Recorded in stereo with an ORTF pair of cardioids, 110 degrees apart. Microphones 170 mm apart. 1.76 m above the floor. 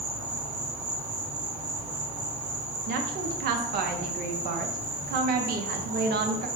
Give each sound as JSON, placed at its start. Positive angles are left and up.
{"t": 0.0, "sound": "an insect", "azimuth_deg": -40, "distance_m": 1.9}
{"t": 2.9, "sound": "a woman speaking", "azimuth_deg": -70, "distance_m": 0.8}